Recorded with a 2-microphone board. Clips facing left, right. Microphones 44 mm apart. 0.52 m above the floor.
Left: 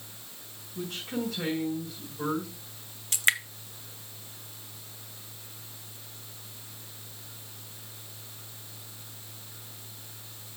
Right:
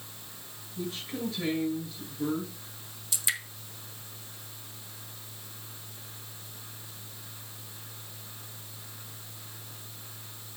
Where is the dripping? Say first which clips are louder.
Left 8 dB; 50° left (ahead or behind), 0.8 m.